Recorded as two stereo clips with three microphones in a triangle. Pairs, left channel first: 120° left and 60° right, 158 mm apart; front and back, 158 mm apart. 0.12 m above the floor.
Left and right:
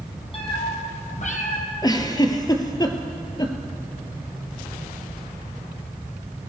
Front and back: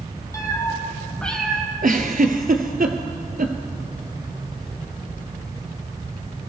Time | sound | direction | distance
0.3 | a cat meowing | 65° left | 1.8 m
1.8 | a giggle | straight behind | 0.9 m